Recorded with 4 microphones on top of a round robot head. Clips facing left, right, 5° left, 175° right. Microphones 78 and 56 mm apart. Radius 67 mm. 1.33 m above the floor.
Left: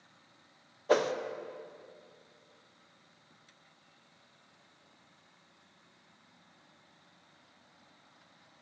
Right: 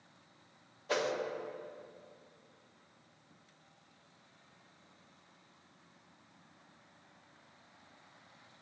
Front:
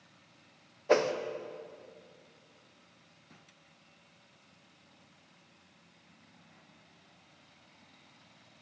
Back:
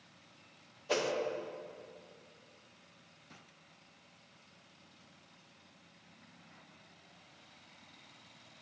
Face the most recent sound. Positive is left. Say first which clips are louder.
# left 6 dB, front 7 dB
turn(degrees=45)